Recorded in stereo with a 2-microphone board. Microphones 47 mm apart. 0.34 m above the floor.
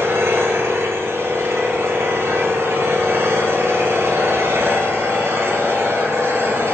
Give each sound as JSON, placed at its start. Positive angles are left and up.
{"t": 0.0, "sound": "an engine running", "side_deg": -65, "distance_m": 3.5}